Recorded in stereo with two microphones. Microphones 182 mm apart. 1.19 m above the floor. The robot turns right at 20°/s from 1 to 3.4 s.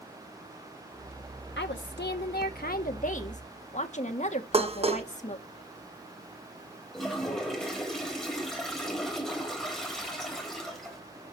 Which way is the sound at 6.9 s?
Centre (ahead or behind).